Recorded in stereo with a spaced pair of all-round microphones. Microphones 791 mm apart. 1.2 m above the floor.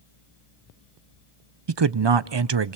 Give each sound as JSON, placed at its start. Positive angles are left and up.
{"t": 1.7, "sound": "a man speaking", "side_deg": -40, "distance_m": 0.5}